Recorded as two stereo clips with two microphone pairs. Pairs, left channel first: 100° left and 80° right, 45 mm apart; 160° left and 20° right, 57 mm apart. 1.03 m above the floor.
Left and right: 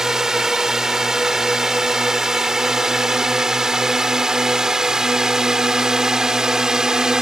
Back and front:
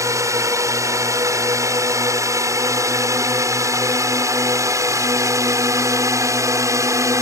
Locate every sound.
0.0 s a drone: 5° right